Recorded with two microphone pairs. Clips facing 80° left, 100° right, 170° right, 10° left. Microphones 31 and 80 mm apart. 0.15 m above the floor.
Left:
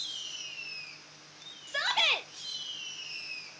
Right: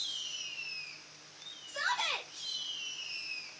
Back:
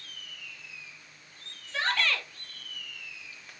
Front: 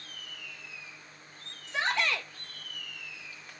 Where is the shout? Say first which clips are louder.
Left 6 dB, even; 80° left, 3 m.